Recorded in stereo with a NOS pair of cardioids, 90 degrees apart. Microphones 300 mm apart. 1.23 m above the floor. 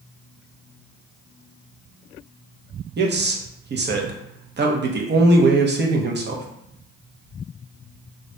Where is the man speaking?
40° right, 0.9 m.